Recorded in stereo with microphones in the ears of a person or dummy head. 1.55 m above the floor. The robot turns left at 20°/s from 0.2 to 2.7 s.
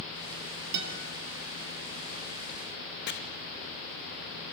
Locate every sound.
0.7 s a guitar: 60° right (ahead or behind), 3.5 m; by 1.0 s 65° right (ahead or behind), 3.5 m
3.1 s chopping: 55° left (ahead or behind), 2.5 m